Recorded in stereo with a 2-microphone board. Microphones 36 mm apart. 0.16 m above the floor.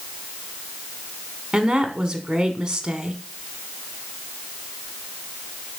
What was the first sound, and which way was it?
A woman speaking, 20° right (ahead or behind).